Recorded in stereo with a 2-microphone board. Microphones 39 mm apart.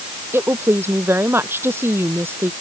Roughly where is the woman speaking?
Right.